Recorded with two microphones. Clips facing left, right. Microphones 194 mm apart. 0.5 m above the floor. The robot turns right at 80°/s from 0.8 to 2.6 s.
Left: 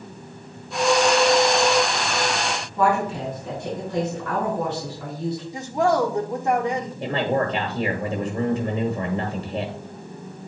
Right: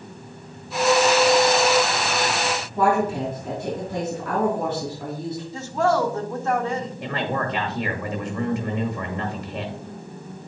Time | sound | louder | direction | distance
2.8 | a woman speaking | right 1 dB | 50° right (ahead or behind) | 3.5 m
5.5 | a woman speaking | even | 15° left (ahead or behind) | 1.1 m
7.0 | a man speaking | left 8 dB | 25° left (ahead or behind) | 1.1 m